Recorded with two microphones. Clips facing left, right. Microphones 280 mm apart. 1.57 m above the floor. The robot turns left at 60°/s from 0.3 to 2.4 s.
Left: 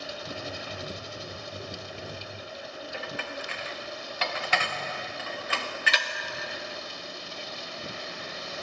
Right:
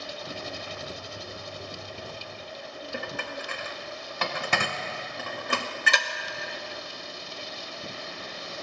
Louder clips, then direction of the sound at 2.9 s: Right 3 dB; 55° right (ahead or behind).